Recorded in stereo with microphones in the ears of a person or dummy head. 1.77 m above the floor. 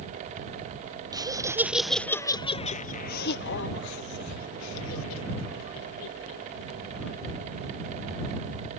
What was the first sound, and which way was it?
Laughter, 20° right (ahead or behind).